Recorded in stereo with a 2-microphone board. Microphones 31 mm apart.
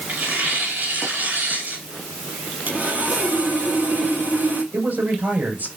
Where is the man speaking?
80° right, 6.5 m.